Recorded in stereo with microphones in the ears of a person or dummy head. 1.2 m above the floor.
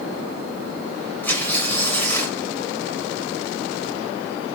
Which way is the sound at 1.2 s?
10° left (ahead or behind).